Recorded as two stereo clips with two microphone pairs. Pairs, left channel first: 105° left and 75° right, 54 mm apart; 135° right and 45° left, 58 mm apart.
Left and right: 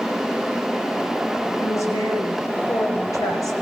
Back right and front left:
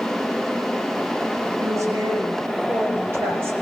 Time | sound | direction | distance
1.6 | a woman speaking | 75° left | 7 m